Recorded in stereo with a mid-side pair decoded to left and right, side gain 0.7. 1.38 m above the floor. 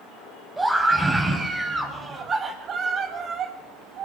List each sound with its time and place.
0.6 s a scream: 15° right, 8.5 m; by 4.1 s 45° right, 8 m